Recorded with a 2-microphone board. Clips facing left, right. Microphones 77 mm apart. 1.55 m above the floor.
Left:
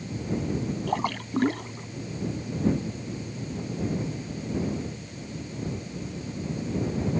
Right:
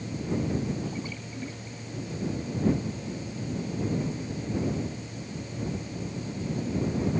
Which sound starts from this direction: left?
A splash, at 0.9 s.